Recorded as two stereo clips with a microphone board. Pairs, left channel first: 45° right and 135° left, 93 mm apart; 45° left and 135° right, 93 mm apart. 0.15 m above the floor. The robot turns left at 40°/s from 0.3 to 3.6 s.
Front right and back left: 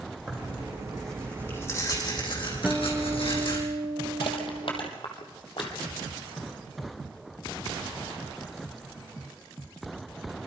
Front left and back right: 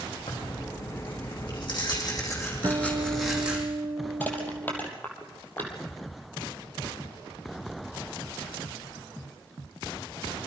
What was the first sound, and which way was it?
Tearing paper, 70° left.